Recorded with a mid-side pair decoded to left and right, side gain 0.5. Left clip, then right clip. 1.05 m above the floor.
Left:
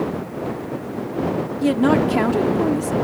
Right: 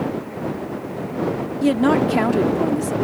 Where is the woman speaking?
5° right.